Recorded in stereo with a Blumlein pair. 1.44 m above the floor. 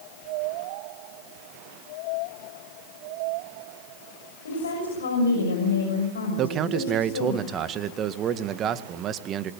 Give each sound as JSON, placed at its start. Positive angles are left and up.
{"t": 4.5, "sound": "a woman speaking", "azimuth_deg": 70, "distance_m": 6.5}
{"t": 6.4, "sound": "a man speaking", "azimuth_deg": -30, "distance_m": 1.9}